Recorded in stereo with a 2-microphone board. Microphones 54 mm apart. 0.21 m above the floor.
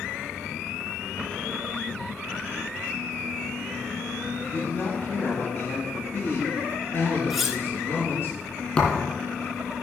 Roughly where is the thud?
Left.